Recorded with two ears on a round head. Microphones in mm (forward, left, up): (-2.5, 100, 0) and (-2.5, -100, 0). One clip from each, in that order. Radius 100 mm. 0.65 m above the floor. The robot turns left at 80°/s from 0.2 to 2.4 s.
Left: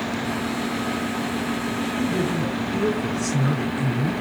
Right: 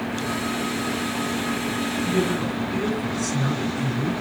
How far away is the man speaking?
About 8 m.